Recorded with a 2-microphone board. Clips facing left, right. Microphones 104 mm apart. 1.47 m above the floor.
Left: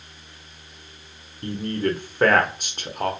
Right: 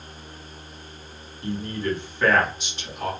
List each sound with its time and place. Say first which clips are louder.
1.4 s a man speaking: left 3 dB; 50° left (ahead or behind), 0.6 m